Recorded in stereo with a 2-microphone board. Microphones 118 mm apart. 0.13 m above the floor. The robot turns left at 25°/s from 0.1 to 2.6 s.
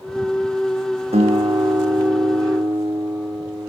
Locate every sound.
1.1 s a guitar: 120° right, 3.5 m; by 3.7 s 155° right, 3.5 m